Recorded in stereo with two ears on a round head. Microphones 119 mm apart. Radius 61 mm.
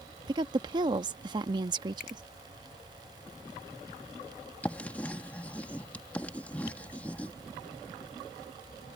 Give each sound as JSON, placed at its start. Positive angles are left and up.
{"t": 0.3, "sound": "a woman speaking", "side_deg": -35}
{"t": 2.0, "sound": "a finger snap", "side_deg": 60}
{"t": 4.6, "sound": "writing", "side_deg": 10}
{"t": 6.7, "sound": "tapping", "side_deg": 75}